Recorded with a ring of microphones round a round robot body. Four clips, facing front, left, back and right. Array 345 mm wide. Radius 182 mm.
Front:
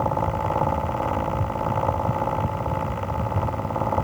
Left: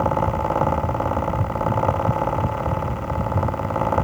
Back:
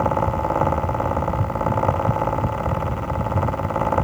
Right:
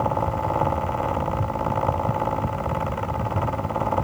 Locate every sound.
Only background noise.